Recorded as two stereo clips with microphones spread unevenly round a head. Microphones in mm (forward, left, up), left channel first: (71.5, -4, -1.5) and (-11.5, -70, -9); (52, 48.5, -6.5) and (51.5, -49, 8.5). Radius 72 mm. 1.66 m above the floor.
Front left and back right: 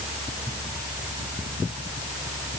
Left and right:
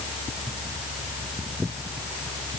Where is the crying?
No crying in this recording.